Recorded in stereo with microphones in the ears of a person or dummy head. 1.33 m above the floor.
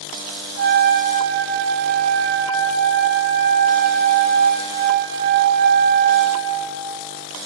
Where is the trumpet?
65° right (ahead or behind), 1.2 m.